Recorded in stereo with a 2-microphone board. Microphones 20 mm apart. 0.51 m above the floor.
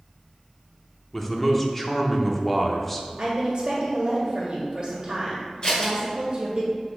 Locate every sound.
1.1 s a man speaking: 15° left (ahead or behind), 0.8 m
3.2 s a woman speaking: 30° right (ahead or behind), 1.7 m
5.6 s scissors: 40° left (ahead or behind), 2 m